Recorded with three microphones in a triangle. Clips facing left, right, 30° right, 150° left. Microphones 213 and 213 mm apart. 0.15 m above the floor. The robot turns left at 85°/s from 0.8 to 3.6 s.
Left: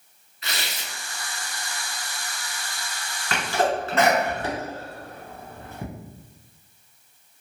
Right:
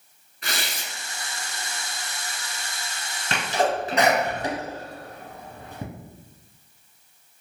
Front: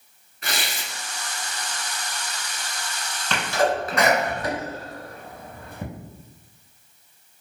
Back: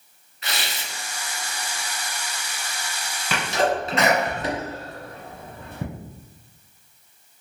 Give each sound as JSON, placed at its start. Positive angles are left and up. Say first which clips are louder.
{"t": 0.4, "sound": "tearing paper", "louder": "right 2 dB, front 1 dB", "azimuth_deg": -60, "distance_m": 0.6}
{"t": 3.3, "sound": "a sneeze", "louder": "even, even", "azimuth_deg": -130, "distance_m": 1.3}